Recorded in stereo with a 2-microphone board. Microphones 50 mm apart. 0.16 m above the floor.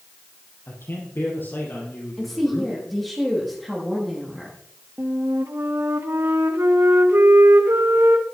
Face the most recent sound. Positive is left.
turn(degrees=-65)  # may be behind; listen again after turning